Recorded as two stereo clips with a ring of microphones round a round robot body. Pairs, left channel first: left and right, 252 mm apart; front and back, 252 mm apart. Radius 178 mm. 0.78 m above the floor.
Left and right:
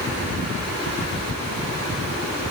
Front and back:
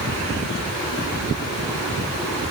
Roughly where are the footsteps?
I don't hear footsteps.